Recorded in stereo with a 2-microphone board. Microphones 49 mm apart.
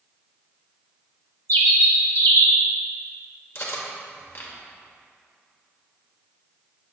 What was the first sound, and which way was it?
A bird, 65° left (ahead or behind).